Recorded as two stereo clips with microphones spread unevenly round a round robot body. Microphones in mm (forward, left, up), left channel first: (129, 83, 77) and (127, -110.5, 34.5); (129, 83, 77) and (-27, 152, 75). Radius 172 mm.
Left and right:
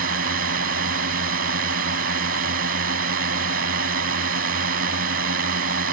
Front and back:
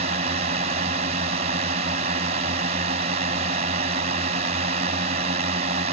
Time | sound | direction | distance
0.0 | a drone | 140° right | ?